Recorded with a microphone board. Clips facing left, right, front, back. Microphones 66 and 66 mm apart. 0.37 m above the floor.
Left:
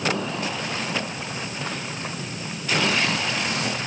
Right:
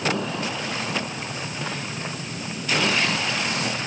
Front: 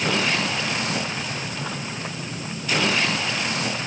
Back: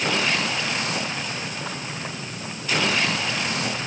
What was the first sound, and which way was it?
Only background noise.